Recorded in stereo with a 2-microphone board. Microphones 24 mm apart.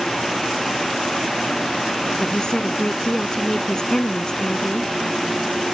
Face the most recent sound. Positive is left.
turn(degrees=30)  # may be behind; listen again after turning